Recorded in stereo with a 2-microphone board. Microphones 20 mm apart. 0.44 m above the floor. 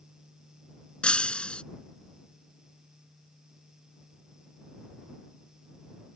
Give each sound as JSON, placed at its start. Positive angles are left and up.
{"t": 1.0, "sound": "breaking glass", "side_deg": 55}